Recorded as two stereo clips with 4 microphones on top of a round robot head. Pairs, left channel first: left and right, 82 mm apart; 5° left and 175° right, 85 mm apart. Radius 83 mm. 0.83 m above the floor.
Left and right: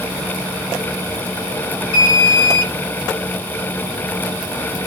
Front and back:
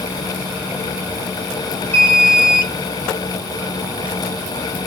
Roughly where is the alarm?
Left.